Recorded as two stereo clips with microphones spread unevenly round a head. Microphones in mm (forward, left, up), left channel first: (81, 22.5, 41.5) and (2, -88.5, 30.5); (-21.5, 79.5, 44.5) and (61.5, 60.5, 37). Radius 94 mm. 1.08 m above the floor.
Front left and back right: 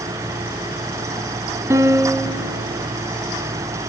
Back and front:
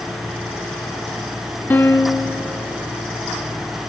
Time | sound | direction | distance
1.7 | a piano | 175° left | 0.6 m